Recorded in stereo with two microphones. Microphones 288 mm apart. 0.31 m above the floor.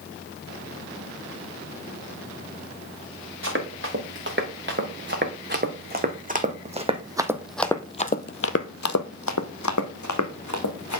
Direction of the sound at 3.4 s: 45° right (ahead or behind).